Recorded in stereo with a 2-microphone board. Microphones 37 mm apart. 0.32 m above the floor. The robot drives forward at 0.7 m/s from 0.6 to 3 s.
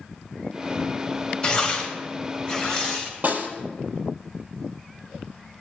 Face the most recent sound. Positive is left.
turn(degrees=-50)  # may be behind; listen again after turning